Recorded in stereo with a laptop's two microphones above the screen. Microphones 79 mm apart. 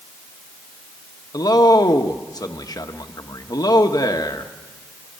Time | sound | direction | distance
1.3 | a man speaking | 50° left (ahead or behind) | 1.2 m